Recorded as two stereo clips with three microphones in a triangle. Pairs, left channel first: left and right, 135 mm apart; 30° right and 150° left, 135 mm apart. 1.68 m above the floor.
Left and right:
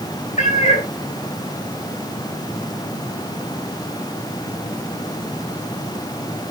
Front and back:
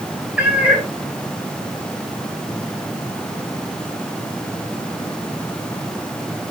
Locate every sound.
0.4 s a cat meowing: 70° left, 3 m